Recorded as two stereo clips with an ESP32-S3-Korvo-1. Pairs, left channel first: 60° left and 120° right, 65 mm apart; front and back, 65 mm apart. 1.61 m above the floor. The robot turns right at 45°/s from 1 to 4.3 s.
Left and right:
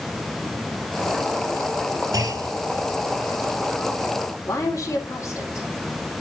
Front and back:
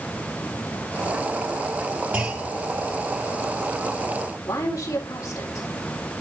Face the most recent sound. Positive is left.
turn(degrees=20)